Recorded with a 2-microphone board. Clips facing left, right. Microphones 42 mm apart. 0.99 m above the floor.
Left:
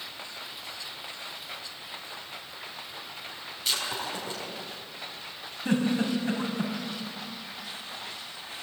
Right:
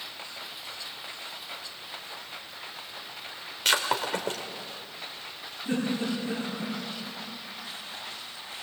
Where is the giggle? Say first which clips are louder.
Left 3 dB; 80° left, 5.5 m.